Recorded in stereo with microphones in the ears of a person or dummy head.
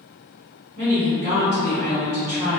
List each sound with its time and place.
0.8 s a woman speaking: 45° right (ahead or behind), 1.2 m